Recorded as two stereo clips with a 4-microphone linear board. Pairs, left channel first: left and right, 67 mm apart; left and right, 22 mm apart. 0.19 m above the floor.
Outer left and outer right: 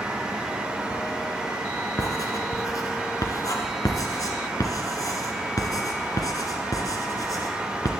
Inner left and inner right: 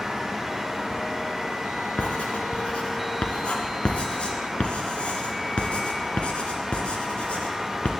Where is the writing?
60° left (ahead or behind), 2 m.